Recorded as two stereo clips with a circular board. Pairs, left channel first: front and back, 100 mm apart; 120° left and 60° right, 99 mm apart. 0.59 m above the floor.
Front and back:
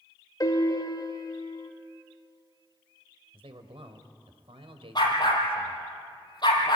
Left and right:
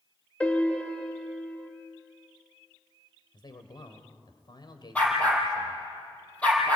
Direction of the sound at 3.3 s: 165° left.